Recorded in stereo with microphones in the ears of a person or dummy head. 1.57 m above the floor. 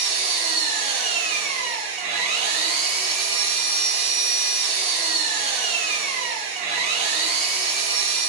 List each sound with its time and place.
0.0 s an engine running: 35° right (ahead or behind), 0.7 m